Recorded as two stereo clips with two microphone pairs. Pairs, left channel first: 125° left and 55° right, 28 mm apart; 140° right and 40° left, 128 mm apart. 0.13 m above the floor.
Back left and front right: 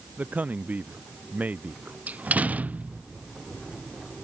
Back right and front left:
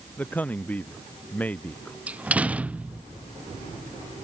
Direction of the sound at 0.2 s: 65° right.